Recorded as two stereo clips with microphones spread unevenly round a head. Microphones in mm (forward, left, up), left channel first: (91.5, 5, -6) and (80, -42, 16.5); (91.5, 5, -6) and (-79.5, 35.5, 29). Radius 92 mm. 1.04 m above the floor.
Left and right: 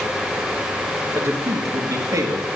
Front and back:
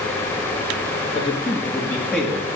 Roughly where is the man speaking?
Ahead right.